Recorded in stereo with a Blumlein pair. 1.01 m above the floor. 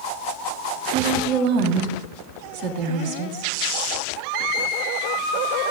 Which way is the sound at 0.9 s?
45° right.